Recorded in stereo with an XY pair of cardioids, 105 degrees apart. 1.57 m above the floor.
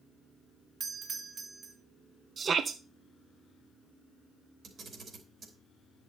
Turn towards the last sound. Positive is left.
turn(degrees=-55)